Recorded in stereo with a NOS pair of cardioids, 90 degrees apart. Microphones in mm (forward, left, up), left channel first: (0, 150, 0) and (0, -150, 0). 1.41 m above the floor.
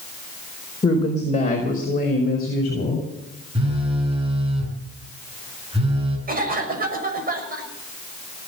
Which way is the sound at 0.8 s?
20° left.